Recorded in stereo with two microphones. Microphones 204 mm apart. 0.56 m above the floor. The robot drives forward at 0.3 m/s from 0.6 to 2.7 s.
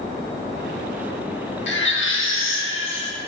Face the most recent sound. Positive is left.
turn(degrees=80)